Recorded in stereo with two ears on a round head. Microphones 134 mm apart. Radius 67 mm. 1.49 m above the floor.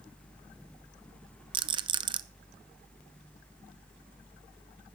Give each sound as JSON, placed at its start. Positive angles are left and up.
{"t": 1.5, "sound": "a rattle", "side_deg": -30, "distance_m": 0.6}